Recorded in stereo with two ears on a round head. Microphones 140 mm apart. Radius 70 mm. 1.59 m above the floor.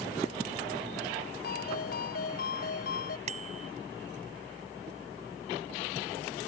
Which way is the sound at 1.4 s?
60° left (ahead or behind).